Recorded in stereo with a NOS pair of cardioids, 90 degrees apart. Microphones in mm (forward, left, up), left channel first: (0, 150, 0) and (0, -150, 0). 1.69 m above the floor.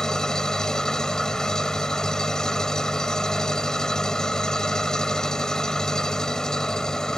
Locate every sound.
0.0 s an engine running: straight ahead